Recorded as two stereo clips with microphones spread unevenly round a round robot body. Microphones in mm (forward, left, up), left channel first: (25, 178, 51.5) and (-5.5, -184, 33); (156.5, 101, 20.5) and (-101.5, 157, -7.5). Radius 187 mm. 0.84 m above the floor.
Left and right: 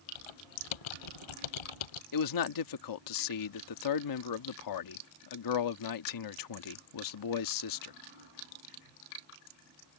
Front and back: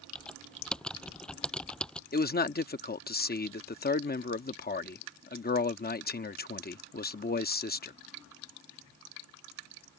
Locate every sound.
0.1 s typing on a keyboard: 75° left
2.1 s a man speaking: 45° left